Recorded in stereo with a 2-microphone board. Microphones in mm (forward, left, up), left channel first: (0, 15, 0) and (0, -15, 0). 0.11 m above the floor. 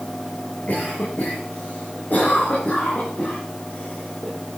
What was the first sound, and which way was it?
A cough, 65° left (ahead or behind).